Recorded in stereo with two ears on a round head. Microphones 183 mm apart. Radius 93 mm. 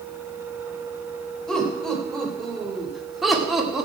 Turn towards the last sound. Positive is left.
turn(degrees=-5)  # may be behind; listen again after turning